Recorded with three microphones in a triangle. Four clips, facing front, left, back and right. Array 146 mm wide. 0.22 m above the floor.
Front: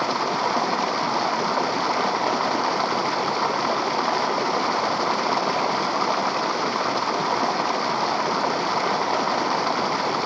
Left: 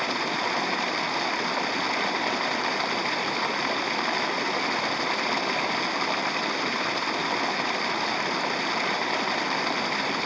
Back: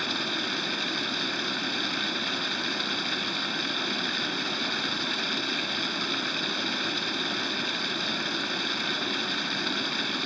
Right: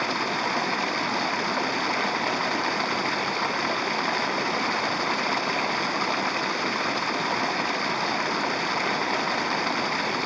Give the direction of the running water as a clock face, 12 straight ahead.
12 o'clock.